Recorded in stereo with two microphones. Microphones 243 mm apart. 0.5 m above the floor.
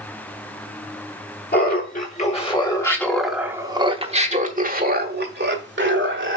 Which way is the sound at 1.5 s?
40° left (ahead or behind).